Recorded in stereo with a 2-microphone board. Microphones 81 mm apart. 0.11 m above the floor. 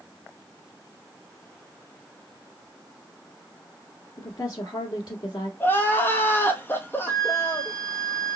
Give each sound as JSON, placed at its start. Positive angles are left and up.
{"t": 4.2, "sound": "a woman speaking", "side_deg": 50, "distance_m": 1.6}
{"t": 5.6, "sound": "crying", "side_deg": 25, "distance_m": 0.9}
{"t": 7.1, "sound": "a flute", "side_deg": -35, "distance_m": 2.0}